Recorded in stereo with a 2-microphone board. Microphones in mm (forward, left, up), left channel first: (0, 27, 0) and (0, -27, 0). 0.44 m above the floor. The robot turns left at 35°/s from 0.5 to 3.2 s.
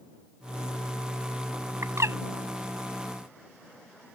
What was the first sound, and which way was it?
A bird, 75° right (ahead or behind).